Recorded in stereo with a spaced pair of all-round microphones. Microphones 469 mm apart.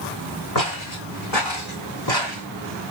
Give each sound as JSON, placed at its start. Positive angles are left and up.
{"t": 0.6, "sound": "footsteps", "side_deg": 40, "distance_m": 3.5}